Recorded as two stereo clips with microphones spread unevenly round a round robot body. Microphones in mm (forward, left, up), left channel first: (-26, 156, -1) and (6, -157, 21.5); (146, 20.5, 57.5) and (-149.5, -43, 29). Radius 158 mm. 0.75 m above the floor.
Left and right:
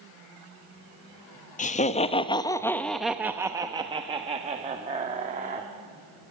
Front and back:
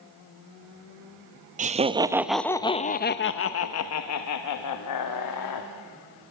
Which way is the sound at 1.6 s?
145° left.